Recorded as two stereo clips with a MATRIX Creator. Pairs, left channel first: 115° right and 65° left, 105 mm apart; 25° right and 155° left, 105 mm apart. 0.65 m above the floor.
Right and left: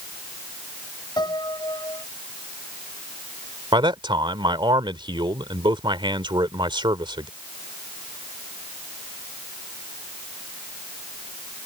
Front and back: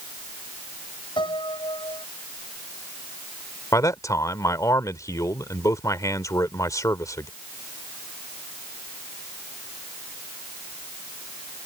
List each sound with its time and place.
1.2 s a piano: 65° right
3.7 s a man speaking: 30° left